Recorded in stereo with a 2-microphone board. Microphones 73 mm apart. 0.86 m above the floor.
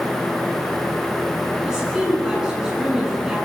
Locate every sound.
1.6 s a woman speaking: 10° right (ahead or behind), 9 m